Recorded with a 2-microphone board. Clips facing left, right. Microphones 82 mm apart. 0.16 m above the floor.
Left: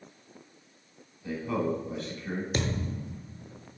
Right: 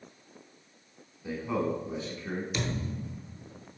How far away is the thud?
About 0.6 m.